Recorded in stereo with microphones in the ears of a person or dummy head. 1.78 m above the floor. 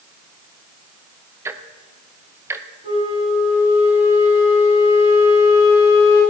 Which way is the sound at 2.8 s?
30° right (ahead or behind).